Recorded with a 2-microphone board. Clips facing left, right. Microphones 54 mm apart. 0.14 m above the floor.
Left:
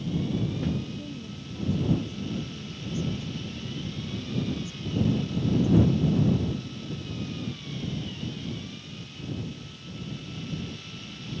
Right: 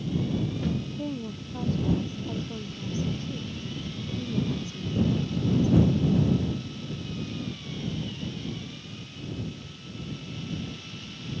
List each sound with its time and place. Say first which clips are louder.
1.0 s a woman speaking: right 5 dB; 50° right (ahead or behind); by 6.1 s 60° right (ahead or behind)